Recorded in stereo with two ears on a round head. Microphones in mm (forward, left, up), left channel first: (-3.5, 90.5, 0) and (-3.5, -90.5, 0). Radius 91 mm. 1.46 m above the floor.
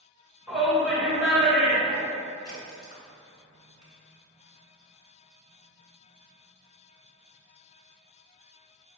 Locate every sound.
0.5 s a shout: centre (ahead or behind), 1.7 m
2.5 s a crack: 40° left (ahead or behind), 1.5 m